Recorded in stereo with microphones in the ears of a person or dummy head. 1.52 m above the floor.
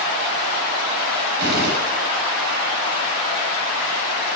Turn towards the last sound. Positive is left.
turn(degrees=-65)  # may be behind; listen again after turning